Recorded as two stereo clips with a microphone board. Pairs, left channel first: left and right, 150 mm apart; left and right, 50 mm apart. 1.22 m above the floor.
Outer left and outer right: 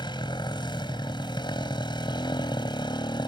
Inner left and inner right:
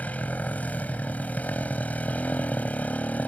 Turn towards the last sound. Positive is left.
turn(degrees=30)  # may be behind; listen again after turning